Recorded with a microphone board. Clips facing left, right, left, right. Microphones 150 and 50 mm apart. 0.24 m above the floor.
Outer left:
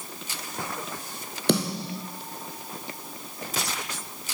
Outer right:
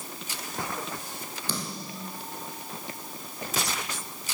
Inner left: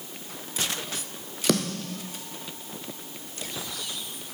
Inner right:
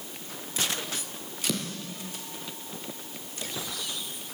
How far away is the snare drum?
About 1.8 m.